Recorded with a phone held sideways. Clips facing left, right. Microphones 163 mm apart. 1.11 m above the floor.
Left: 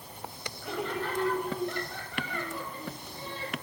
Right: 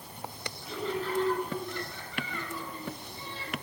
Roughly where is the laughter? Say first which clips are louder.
Even; left.